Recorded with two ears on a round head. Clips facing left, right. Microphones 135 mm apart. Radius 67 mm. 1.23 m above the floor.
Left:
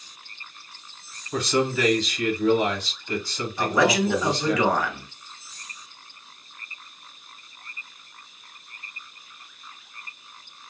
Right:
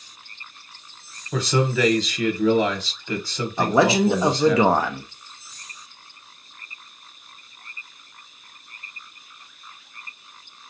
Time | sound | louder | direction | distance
1.3 | a man speaking | right 1 dB | 65° right (ahead or behind) | 1.3 m
3.6 | a man speaking | right 3 dB | 25° right (ahead or behind) | 0.7 m